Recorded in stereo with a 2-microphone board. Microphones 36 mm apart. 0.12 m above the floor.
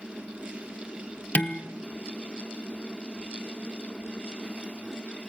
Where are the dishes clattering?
40° left (ahead or behind), 1.4 m.